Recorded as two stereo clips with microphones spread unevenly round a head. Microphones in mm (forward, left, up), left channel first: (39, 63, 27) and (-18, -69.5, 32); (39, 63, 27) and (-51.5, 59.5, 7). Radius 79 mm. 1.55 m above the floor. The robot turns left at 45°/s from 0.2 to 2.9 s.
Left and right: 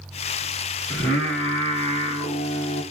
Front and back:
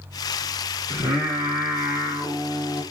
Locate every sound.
0.9 s singing: 145° left, 1.2 m; by 2.8 s 55° left, 1.2 m